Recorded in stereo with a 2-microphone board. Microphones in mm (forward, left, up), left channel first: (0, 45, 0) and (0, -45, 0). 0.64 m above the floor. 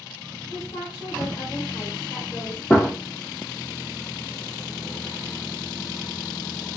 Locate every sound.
0.5 s a woman speaking: 30° left (ahead or behind), 2 m
2.7 s a gunshot: 20° left (ahead or behind), 0.8 m